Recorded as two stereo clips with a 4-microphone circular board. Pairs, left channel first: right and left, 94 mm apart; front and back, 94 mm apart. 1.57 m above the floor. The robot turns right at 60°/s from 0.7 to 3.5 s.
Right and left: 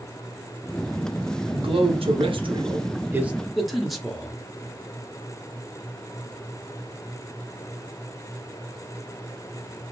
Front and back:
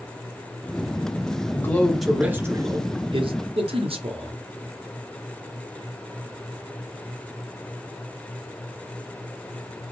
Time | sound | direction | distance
1.5 | a man speaking | 60° left | 0.9 m